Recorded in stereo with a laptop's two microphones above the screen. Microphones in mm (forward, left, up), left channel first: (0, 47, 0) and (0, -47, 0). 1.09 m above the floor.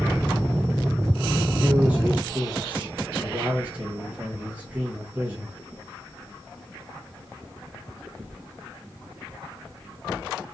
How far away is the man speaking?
About 1.2 m.